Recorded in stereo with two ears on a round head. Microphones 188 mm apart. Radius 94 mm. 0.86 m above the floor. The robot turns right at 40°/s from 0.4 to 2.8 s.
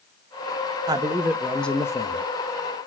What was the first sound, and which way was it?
A man speaking, 25° right.